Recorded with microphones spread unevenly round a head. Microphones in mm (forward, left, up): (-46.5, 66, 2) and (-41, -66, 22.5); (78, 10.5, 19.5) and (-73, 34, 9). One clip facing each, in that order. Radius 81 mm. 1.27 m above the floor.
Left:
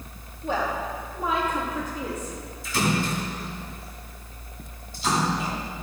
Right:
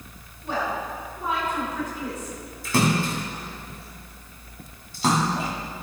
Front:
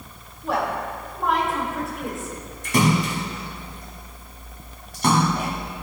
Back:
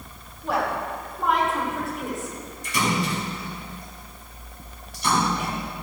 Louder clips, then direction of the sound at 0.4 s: Left 1 dB, front 1 dB; 80° left.